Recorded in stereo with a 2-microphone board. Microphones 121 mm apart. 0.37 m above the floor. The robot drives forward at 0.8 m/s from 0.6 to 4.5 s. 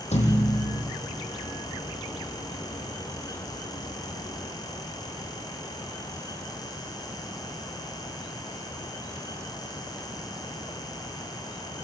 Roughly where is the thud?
Left.